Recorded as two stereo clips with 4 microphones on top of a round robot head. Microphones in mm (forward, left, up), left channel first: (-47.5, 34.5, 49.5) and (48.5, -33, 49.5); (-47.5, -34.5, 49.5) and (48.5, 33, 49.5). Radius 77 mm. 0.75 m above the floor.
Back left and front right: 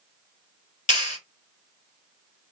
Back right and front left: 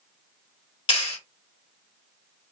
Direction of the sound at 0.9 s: 165° left.